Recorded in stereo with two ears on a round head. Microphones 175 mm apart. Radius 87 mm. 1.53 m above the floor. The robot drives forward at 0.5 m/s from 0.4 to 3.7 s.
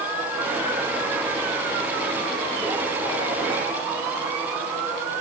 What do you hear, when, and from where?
Only background noise.